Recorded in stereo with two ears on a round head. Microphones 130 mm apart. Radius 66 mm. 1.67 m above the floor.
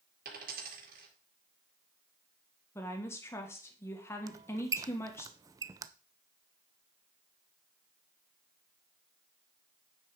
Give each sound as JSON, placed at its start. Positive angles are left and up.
{"t": 0.2, "sound": "a dropped coin", "side_deg": -70, "distance_m": 4.0}
{"t": 2.8, "sound": "a woman speaking", "side_deg": 20, "distance_m": 1.4}
{"t": 4.3, "sound": "a squeak", "side_deg": -25, "distance_m": 0.6}